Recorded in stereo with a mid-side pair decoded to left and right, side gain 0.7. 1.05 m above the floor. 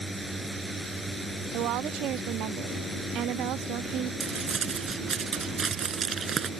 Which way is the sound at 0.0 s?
10° right.